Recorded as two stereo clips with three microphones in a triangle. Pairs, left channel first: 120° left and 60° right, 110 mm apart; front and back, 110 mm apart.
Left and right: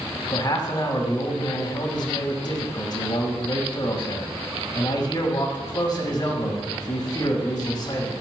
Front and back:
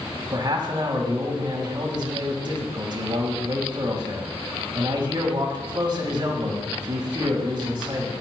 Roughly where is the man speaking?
Behind left.